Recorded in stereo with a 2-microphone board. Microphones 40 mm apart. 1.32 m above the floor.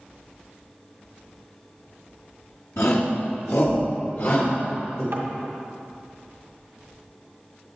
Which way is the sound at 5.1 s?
55° right (ahead or behind).